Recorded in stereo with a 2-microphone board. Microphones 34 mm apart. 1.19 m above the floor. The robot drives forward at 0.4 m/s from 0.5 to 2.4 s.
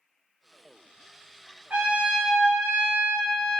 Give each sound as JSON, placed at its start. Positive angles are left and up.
{"t": 1.7, "sound": "a trumpet", "side_deg": -45, "distance_m": 1.0}